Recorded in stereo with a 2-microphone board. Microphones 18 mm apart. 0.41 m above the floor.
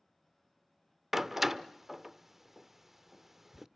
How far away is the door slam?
About 0.6 m.